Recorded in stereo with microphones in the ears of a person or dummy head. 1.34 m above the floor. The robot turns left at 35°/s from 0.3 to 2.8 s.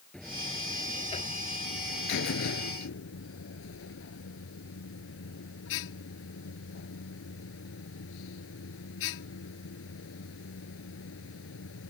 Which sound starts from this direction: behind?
A buzzer, at 0.1 s.